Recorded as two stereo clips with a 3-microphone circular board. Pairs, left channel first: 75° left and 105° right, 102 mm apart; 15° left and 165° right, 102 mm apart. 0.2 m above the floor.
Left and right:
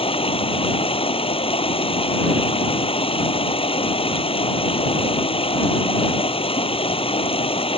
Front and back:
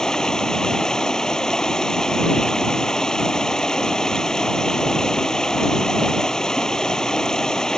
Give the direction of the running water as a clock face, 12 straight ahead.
9 o'clock.